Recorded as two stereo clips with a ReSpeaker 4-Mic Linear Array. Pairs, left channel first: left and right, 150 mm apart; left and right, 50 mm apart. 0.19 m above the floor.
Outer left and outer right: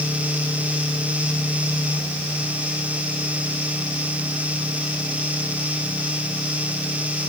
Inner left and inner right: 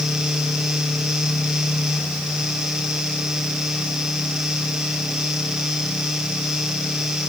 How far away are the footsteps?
No footsteps in this recording.